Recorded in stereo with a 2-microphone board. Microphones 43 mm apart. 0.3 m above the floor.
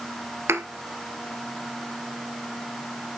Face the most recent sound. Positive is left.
turn(degrees=-85)